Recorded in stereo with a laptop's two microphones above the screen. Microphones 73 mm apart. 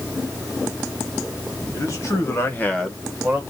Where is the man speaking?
45° left (ahead or behind), 1.7 m; by 3.4 s 20° right (ahead or behind), 1.3 m.